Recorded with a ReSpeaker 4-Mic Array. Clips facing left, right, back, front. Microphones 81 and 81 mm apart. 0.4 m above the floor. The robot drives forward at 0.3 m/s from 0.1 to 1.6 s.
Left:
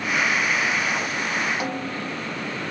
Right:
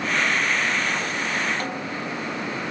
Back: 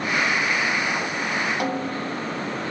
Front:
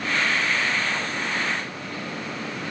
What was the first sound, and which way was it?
A snare drum, 170° left.